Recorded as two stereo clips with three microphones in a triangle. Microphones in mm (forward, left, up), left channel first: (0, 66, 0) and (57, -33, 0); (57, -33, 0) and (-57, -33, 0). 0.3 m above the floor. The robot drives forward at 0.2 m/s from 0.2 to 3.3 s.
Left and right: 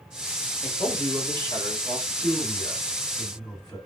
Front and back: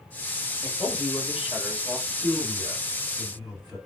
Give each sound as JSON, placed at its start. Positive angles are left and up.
{"t": 0.6, "sound": "a man speaking", "azimuth_deg": 100, "distance_m": 1.3}
{"t": 2.1, "sound": "a man speaking", "azimuth_deg": 155, "distance_m": 2.0}